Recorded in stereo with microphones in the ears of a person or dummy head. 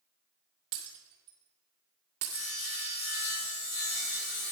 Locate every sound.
0.7 s breaking glass: 40° right (ahead or behind), 1.9 m
2.3 s sawing: 65° left (ahead or behind), 5 m